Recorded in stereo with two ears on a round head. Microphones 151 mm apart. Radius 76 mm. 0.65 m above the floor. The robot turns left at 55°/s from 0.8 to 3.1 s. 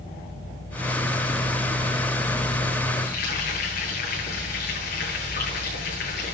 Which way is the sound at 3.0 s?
50° left (ahead or behind).